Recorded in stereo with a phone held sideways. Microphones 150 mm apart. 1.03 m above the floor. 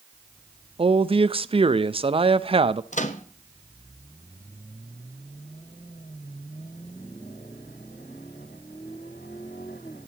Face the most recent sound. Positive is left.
turn(degrees=55)  # may be behind; listen again after turning